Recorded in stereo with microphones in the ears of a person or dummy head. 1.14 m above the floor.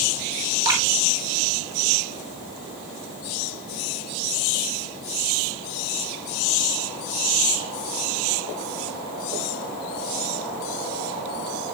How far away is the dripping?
About 3 m.